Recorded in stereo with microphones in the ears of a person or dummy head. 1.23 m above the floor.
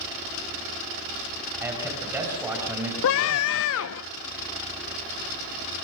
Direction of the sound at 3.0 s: 70° left (ahead or behind).